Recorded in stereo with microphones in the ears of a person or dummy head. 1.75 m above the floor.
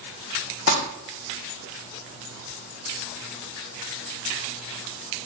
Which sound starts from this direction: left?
Crumpling, at 0.7 s.